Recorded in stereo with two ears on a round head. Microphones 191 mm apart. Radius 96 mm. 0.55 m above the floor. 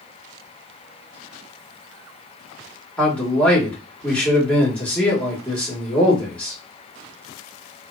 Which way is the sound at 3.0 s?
5° left (ahead or behind).